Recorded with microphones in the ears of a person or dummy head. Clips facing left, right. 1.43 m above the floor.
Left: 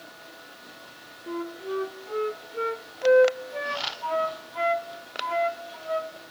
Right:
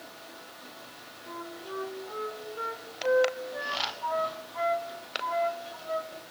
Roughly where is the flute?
Left.